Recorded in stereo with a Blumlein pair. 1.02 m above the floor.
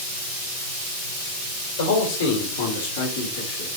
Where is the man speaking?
60° left, 4 m; by 3.7 s 50° left, 3 m.